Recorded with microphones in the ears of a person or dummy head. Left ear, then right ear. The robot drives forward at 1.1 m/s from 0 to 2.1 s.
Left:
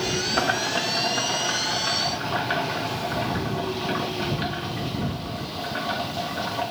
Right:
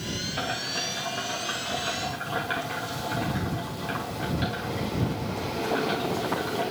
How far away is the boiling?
About 0.8 m.